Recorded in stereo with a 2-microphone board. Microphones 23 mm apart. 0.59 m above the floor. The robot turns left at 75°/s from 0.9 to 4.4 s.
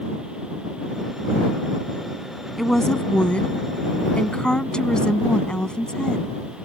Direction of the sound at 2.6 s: Straight behind.